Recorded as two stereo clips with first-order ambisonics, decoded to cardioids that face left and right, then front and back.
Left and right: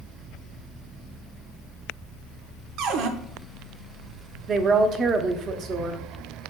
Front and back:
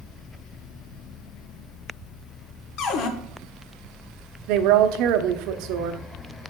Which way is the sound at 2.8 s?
45° right.